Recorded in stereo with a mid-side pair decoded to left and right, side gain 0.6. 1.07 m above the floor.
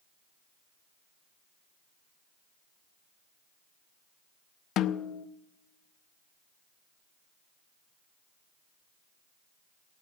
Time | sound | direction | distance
4.8 | a snare drum | 55° left | 0.6 m